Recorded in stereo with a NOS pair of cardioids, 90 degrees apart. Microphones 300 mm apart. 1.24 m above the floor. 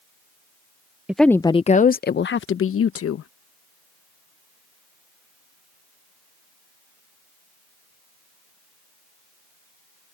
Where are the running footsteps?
I don't hear running footsteps.